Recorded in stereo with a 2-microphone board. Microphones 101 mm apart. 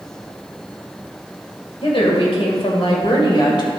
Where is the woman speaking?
65° left (ahead or behind), 2 m; by 3.7 s 45° left (ahead or behind), 2 m.